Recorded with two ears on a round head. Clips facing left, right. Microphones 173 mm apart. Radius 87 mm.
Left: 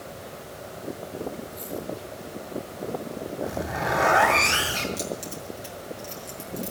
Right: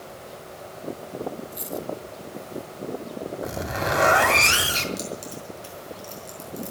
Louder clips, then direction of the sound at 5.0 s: Left 1 dB; centre (ahead or behind).